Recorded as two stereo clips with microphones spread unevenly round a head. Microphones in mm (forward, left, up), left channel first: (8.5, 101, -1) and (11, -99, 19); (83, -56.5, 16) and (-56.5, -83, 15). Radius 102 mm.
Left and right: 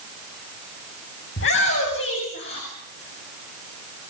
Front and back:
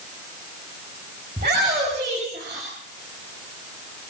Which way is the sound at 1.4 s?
130° left.